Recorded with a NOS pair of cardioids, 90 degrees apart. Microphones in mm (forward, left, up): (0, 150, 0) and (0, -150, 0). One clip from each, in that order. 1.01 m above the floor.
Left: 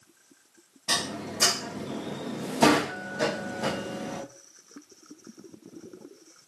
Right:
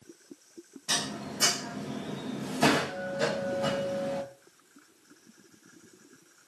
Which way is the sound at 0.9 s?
30° left.